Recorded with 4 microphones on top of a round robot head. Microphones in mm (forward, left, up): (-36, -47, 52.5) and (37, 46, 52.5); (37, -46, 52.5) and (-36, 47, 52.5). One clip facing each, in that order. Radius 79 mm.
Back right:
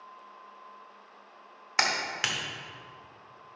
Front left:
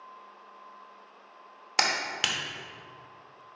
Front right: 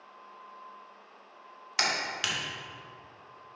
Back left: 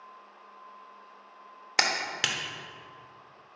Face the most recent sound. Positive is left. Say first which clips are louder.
# front left 1 dB, back left 2 dB
turn(degrees=115)